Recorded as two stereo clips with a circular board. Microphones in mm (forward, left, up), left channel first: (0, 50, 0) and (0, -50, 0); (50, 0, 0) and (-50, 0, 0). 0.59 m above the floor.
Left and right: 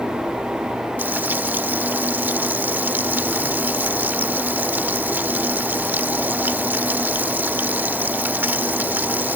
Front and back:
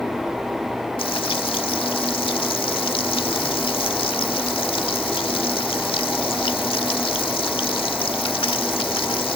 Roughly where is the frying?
Ahead.